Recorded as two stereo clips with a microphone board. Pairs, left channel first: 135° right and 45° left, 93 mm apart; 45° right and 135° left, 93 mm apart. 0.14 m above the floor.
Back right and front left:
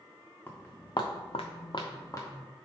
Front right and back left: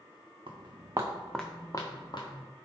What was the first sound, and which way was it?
Footsteps, 160° left.